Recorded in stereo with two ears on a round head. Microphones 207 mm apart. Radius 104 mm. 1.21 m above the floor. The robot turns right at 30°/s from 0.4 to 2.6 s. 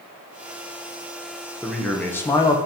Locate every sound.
1.6 s a man speaking: centre (ahead or behind), 0.7 m; by 2.6 s 15° left (ahead or behind), 0.7 m